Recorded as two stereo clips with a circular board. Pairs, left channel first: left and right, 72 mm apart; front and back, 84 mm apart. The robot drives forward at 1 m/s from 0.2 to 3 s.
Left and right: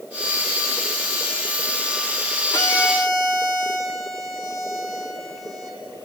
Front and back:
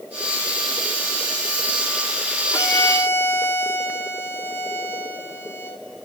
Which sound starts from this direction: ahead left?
A violin, at 2.5 s.